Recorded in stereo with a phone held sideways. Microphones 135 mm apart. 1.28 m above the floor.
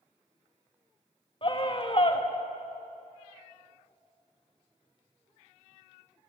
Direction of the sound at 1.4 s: 40° left (ahead or behind).